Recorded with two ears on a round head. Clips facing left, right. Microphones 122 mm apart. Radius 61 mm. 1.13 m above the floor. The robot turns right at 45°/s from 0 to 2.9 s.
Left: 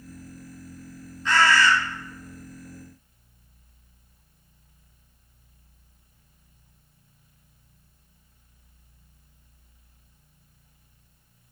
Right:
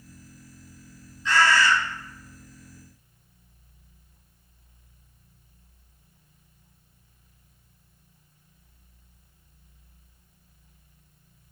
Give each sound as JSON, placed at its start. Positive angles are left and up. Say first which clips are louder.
{"t": 1.2, "sound": "a bird", "louder": "left 1 dB", "side_deg": 40, "distance_m": 0.9}